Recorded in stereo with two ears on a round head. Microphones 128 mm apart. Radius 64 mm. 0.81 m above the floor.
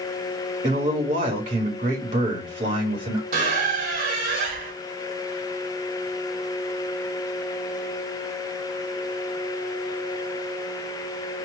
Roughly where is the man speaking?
Right.